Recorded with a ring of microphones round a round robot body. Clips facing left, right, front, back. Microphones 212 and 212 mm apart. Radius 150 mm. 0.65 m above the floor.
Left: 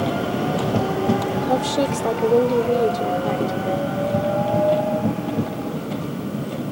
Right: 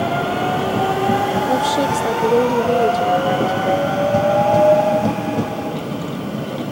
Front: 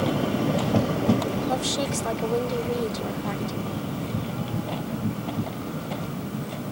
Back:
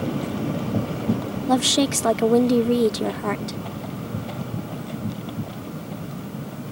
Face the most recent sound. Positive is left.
turn(degrees=-175)